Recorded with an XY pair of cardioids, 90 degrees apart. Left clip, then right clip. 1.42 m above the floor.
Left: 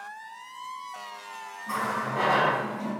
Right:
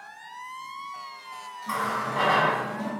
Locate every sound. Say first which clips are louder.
1.7 s a running tap: right 1 dB; 65° right, 1.2 m